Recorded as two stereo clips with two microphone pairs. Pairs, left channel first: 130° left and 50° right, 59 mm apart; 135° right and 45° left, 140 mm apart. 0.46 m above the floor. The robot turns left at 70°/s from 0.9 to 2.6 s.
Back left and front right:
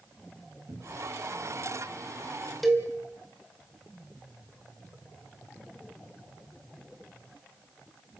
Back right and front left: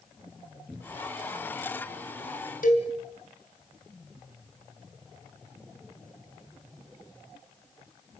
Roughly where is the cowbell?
Behind right.